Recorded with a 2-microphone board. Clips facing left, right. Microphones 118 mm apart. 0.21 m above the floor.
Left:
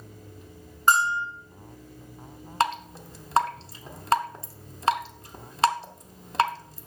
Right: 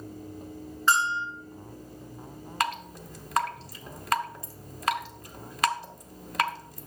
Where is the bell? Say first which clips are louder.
Left 3 dB; 50° left (ahead or behind), 1.9 m.